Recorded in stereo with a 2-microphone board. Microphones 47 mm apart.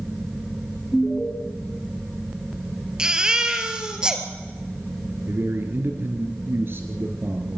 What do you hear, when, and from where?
0.9 s an alarm: 25° left (ahead or behind), 2 m
3.0 s a baby crying: 15° right (ahead or behind), 1.8 m
5.3 s a man speaking: 50° right (ahead or behind), 2.5 m